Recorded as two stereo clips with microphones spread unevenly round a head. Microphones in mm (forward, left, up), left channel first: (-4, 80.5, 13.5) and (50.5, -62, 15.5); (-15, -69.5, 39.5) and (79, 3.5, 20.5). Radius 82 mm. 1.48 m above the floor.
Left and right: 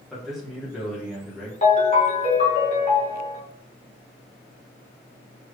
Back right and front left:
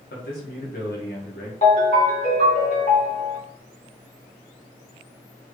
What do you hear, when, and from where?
0.1 s a man speaking: 160° right, 1.3 m
1.6 s a ringtone: 165° left, 1.2 m